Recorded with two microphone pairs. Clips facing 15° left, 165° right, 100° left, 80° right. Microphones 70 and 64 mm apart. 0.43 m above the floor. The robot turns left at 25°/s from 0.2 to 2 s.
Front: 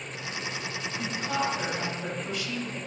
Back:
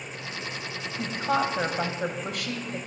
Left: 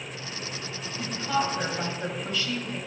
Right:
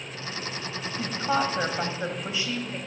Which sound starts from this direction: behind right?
A woman speaking, at 1.0 s.